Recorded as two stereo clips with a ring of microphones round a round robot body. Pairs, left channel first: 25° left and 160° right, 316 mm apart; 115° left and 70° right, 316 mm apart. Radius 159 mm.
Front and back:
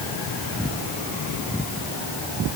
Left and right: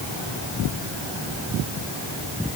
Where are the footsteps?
I don't hear footsteps.